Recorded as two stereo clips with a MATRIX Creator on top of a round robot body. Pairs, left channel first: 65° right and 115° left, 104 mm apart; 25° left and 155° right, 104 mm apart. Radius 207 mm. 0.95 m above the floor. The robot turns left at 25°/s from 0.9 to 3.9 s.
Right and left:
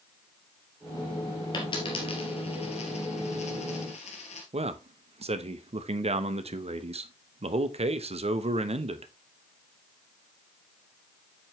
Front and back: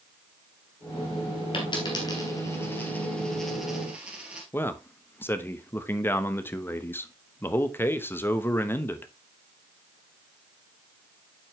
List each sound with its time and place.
1.5 s a dropped coin: 20° right, 2.5 m; by 4.4 s 80° right, 2.5 m
4.5 s a man speaking: 90° left, 1.1 m